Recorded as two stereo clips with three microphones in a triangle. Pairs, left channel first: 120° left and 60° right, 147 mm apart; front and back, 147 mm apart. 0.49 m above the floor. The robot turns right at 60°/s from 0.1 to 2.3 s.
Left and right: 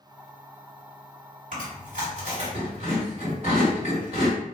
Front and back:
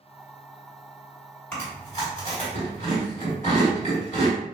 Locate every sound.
1.5 s chewing: 70° right, 1.8 m; by 4.3 s 25° right, 1.8 m